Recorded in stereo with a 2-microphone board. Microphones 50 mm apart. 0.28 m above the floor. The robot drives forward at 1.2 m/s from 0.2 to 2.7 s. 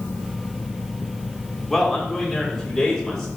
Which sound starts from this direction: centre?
A man speaking, at 1.7 s.